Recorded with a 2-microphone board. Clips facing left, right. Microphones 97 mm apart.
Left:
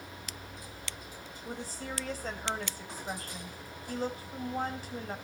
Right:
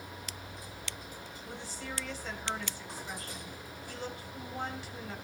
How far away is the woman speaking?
About 2.5 m.